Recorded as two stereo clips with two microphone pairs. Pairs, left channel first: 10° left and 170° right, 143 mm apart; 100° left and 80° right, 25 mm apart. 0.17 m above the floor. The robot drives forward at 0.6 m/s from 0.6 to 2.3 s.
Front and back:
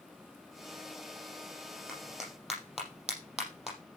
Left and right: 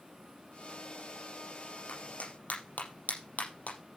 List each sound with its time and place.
1.9 s a clap: 105° left, 6.5 m; by 3.8 s 110° left, 6.5 m